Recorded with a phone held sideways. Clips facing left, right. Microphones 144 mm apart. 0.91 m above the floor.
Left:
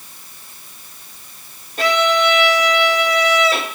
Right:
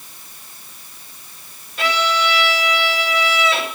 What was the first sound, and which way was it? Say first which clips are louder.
A violin: left 4 dB; 40° left (ahead or behind).